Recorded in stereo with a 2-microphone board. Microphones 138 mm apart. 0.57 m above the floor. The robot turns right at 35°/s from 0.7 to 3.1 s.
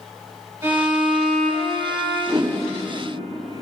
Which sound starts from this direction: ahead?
A violin, at 0.6 s.